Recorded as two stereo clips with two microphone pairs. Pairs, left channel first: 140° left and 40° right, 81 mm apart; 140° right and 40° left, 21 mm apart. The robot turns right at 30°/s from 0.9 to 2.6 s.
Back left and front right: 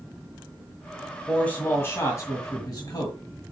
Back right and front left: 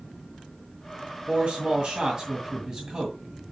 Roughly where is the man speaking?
Ahead left.